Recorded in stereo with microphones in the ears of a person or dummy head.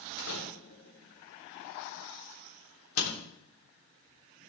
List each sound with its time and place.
0.2 s a door slam: 80° left, 3 m